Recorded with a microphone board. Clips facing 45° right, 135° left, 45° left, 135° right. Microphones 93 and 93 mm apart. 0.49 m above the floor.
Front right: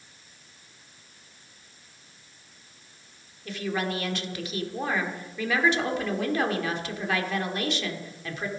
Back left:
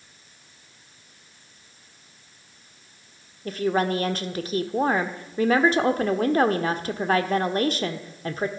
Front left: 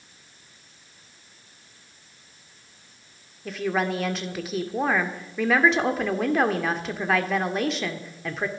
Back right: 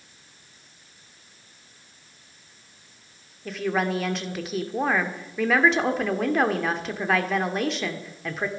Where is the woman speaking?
135° left, 1.1 m.